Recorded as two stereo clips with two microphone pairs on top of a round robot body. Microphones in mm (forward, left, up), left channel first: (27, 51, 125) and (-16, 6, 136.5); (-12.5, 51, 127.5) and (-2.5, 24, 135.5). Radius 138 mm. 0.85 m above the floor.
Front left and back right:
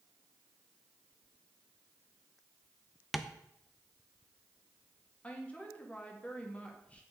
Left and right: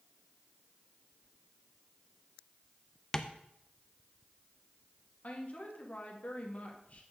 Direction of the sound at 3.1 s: 120° left.